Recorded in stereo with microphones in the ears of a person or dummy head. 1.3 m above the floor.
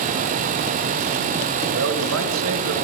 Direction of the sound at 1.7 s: 80° right.